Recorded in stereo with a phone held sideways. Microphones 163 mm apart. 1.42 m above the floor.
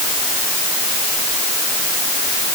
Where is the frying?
I don't hear frying.